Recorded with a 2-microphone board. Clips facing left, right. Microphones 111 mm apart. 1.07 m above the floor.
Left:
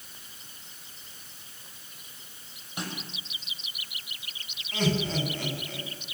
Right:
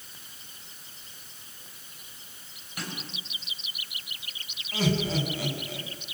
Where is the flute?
No flute in this recording.